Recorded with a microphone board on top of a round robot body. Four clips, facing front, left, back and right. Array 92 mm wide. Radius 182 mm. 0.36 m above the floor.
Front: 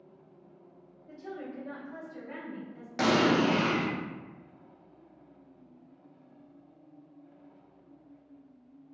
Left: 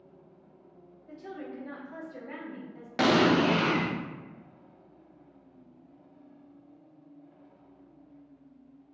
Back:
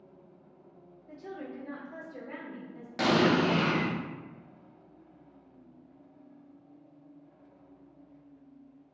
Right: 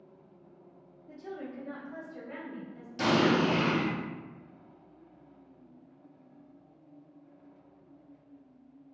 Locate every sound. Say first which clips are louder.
1.1 s a woman speaking: even, front 1 dB; 80° left, 1.7 m; by 2.9 s 130° left, 1.7 m
3.0 s an explosion: left 3 dB, even; 75° left, 0.6 m